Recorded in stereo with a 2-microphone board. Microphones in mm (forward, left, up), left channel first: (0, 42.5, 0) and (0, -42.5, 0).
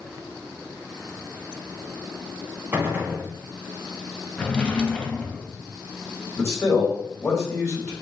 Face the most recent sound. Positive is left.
turn(degrees=30)  # may be behind; listen again after turning